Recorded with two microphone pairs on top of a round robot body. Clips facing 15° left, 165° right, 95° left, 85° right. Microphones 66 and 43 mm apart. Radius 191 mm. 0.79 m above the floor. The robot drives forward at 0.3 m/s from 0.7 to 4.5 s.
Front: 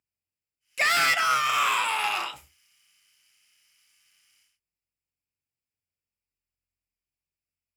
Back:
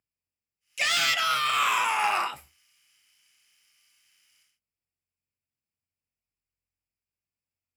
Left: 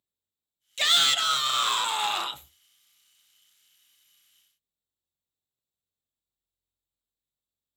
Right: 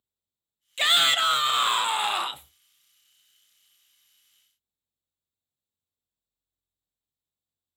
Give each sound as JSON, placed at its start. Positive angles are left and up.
{"t": 0.8, "sound": "a shout", "azimuth_deg": -25, "distance_m": 0.6}